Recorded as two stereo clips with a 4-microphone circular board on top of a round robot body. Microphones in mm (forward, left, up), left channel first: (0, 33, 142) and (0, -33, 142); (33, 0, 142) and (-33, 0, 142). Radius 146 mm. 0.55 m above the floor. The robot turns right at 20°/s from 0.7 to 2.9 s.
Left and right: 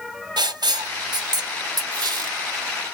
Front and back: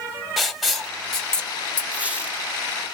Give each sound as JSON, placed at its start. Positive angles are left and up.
{"t": 0.4, "sound": "writing", "azimuth_deg": -90, "distance_m": 1.6}
{"t": 1.9, "sound": "a squeak", "azimuth_deg": -110, "distance_m": 3.0}